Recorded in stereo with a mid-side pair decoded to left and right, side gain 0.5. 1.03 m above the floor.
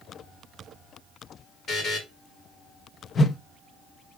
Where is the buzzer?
50° left, 1.8 m.